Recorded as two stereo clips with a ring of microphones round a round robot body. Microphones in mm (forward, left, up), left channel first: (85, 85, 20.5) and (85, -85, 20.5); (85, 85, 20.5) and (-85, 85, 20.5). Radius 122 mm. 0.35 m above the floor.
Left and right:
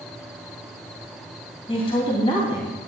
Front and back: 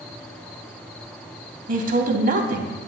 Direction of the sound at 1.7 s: 155° left.